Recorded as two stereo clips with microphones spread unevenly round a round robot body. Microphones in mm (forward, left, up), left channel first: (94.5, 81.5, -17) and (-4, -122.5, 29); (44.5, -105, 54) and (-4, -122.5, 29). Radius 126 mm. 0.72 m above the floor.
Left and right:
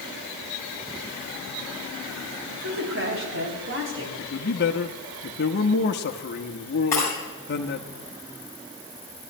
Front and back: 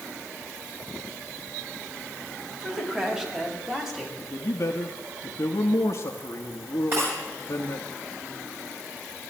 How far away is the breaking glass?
About 7 m.